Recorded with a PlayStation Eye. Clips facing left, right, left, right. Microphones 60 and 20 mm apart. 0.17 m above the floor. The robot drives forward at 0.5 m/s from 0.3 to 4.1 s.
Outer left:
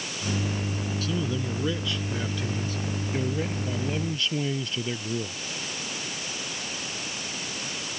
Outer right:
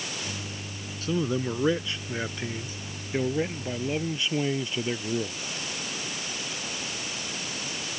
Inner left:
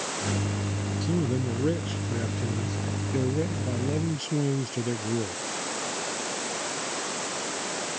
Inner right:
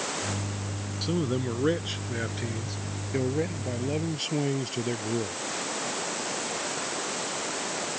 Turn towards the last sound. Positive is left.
turn(degrees=-20)  # may be behind; listen again after turning